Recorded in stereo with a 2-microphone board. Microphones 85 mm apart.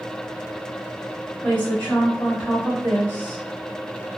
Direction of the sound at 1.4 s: 20° left (ahead or behind).